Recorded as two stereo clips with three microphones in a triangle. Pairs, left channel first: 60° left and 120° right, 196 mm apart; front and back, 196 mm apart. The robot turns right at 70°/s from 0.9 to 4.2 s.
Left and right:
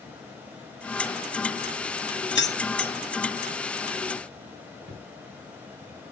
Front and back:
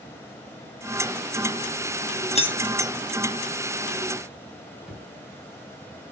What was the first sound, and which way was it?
Keys jangling, 55° left.